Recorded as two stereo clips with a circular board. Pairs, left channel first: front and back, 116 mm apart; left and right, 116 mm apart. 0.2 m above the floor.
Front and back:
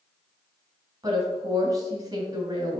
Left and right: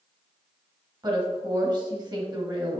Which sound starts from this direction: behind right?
A woman speaking, at 1.0 s.